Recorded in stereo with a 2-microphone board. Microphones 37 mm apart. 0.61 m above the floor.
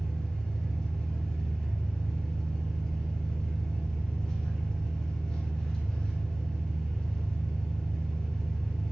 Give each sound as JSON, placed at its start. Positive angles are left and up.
{"t": 0.0, "sound": "an engine running", "side_deg": 20, "distance_m": 1.5}